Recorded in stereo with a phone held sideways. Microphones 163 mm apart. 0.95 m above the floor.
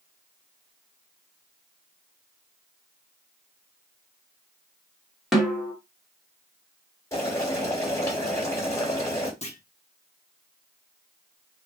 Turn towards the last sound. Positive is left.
turn(degrees=45)  # may be behind; listen again after turning